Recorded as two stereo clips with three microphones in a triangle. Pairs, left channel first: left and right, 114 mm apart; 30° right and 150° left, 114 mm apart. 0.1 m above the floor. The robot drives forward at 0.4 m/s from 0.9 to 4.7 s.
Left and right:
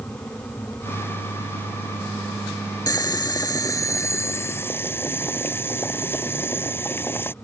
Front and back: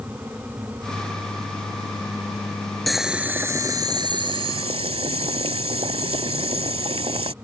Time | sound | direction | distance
2.9 | boiling | 60° left | ?